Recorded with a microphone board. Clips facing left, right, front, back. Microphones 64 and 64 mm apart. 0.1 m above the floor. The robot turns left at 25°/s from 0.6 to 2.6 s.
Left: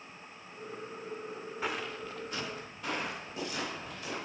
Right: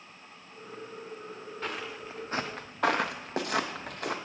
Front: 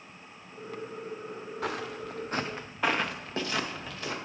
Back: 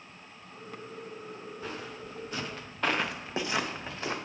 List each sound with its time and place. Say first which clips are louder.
1.6 s footsteps: left 1 dB, front 7 dB; 10° left, 0.9 m; by 4.2 s 120° right, 1.4 m